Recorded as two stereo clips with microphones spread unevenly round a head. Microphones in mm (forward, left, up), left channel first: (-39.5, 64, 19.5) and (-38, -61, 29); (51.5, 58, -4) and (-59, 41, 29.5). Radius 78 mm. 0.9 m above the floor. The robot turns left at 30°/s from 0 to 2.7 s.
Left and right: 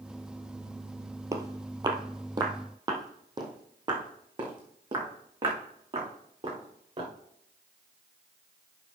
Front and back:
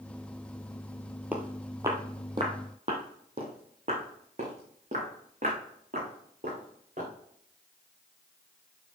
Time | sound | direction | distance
1.3 | footsteps | 125° right | 1.1 m